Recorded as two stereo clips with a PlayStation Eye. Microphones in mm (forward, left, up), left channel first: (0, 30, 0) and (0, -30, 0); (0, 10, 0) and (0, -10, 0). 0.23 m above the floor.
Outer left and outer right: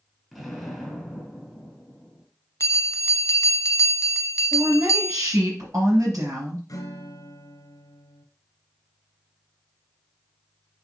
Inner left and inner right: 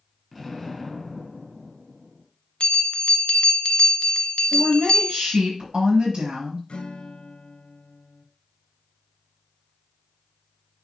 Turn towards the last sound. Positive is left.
turn(degrees=70)  # may be behind; listen again after turning